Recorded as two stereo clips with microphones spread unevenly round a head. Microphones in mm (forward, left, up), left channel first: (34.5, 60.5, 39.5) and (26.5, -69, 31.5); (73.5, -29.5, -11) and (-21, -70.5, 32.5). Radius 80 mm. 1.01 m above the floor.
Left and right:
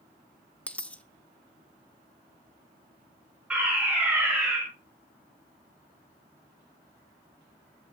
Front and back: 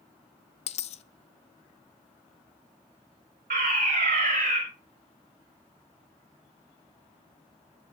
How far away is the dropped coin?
About 0.6 m.